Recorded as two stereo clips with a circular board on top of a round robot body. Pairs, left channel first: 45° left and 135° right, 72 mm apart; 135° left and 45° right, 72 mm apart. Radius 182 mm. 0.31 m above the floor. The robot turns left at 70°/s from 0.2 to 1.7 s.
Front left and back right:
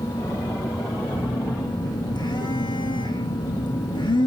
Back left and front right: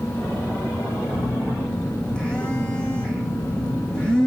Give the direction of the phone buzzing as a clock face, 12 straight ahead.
9 o'clock.